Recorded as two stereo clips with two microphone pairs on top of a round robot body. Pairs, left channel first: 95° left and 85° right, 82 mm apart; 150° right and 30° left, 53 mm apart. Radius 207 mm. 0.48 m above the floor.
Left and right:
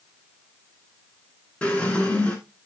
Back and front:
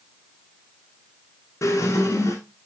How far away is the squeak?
About 0.9 m.